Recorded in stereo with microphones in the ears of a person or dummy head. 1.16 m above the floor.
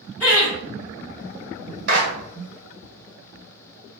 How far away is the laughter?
About 0.8 m.